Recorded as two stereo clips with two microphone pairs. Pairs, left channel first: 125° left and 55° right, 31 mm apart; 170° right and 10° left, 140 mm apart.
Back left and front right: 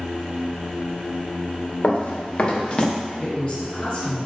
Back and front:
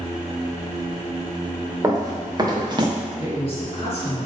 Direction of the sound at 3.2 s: 160° left.